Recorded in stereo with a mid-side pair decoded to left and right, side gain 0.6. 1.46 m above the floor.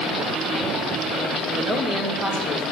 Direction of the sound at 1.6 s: 20° left.